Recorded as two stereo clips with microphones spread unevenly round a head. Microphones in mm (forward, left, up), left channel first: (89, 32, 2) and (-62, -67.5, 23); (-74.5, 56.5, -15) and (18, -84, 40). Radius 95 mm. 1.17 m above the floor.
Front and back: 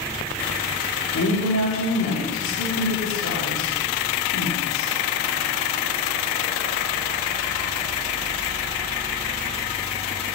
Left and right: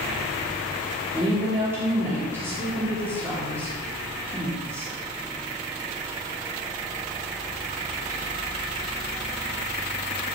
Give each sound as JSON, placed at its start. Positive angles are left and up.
{"t": 1.1, "sound": "a woman speaking", "azimuth_deg": 25, "distance_m": 3.0}